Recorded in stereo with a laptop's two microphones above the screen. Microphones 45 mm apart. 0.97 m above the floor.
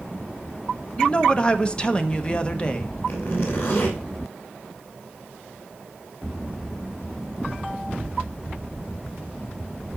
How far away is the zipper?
About 3 m.